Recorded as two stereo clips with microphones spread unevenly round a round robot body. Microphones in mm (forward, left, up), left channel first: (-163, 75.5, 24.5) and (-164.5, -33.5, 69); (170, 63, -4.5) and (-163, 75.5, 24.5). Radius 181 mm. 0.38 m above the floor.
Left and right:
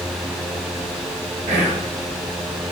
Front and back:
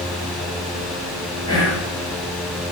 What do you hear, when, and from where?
1.5 s whispering: 80° right, 8 m